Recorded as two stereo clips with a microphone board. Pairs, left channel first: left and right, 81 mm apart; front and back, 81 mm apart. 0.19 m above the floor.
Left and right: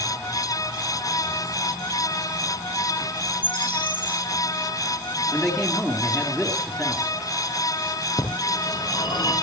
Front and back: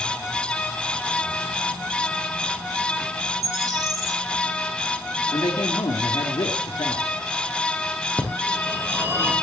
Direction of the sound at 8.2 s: 115° left.